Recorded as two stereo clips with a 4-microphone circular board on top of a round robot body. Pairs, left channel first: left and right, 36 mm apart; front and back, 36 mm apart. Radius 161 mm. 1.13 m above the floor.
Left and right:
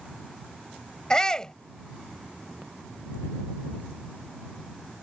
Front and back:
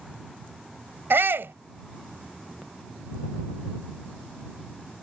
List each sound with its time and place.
1.1 s a shout: 160° left